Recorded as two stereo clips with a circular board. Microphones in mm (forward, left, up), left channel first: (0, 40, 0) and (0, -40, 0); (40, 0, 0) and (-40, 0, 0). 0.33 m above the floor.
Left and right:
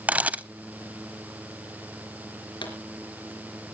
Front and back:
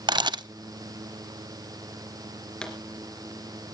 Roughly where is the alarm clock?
No alarm clock in this recording.